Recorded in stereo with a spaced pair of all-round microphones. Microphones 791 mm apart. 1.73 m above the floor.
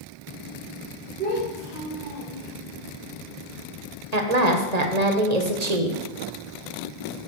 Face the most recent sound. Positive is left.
turn(degrees=-55)  # may be behind; listen again after turning